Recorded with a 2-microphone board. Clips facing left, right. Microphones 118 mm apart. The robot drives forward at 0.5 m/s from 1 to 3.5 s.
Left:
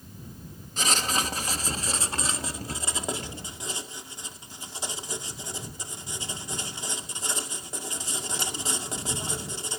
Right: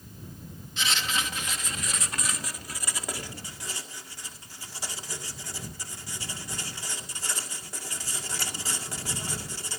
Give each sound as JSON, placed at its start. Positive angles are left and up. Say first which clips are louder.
{"t": 0.8, "sound": "writing", "louder": "left 3 dB", "side_deg": 45, "distance_m": 1.2}